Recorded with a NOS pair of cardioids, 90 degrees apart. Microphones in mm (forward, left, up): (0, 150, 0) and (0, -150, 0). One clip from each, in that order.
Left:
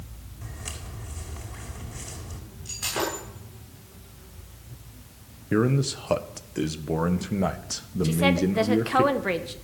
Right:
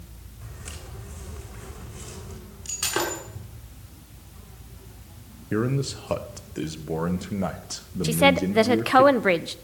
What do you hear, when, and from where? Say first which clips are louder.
0.4 s footsteps: left 3 dB; 25° left, 5.5 m
2.6 s breaking glass: right 2 dB; 55° right, 7.5 m
5.5 s a man speaking: left 3 dB; 10° left, 1.3 m
8.0 s a woman speaking: right 4 dB; 35° right, 0.9 m